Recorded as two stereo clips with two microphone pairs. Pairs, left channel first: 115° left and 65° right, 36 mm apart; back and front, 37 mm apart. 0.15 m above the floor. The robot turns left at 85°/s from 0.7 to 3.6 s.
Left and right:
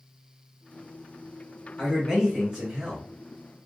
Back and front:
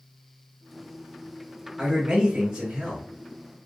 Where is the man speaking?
45° left, 1.7 m; by 3.1 s 65° right, 1.7 m.